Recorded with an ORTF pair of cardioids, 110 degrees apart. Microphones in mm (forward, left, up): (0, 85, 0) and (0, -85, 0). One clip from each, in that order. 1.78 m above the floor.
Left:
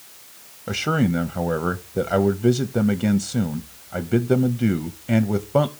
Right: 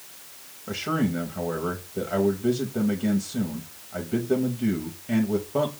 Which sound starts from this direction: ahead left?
A man speaking, at 0.7 s.